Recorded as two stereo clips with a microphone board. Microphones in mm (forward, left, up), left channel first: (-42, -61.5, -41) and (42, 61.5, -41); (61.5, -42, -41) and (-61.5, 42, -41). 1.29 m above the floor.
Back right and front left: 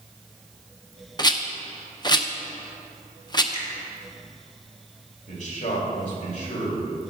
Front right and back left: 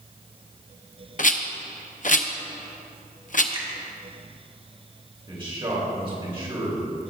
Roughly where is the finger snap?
Behind.